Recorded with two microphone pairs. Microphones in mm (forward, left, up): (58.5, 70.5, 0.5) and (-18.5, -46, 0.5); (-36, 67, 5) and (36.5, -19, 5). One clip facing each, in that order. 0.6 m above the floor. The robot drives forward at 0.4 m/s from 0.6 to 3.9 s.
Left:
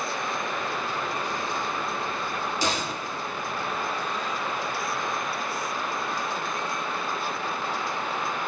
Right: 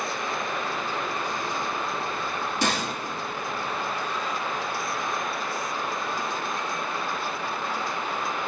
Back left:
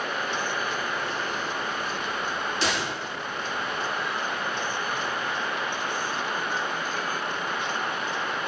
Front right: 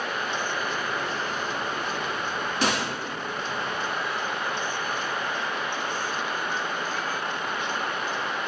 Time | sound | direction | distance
2.6 | a gunshot | 90° right | 4 m